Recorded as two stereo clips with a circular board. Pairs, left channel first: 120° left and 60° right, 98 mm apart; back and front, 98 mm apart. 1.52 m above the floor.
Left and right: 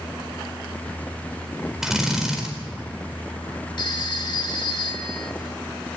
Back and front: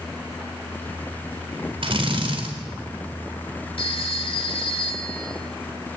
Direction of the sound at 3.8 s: 155° left.